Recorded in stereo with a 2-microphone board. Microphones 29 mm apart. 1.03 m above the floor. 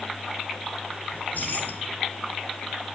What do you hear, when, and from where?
1.1 s keys jangling: 85° left, 2.5 m